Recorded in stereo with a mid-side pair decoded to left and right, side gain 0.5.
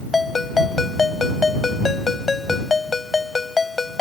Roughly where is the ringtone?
Ahead left.